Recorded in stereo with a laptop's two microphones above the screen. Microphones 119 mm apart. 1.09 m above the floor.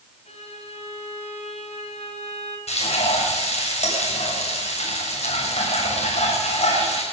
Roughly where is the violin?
Left.